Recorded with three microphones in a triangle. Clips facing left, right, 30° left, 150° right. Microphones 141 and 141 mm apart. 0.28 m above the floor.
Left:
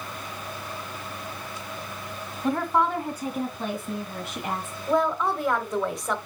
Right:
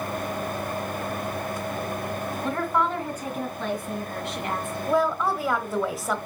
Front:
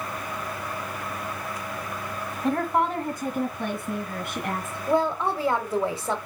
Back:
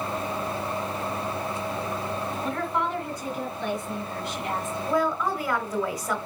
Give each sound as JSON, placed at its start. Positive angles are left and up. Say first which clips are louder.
{"t": 2.4, "sound": "a woman speaking", "louder": "left 3 dB, front 6 dB", "azimuth_deg": 25, "distance_m": 1.2}
{"t": 4.9, "sound": "a woman speaking", "louder": "even, front 2 dB", "azimuth_deg": -5, "distance_m": 1.2}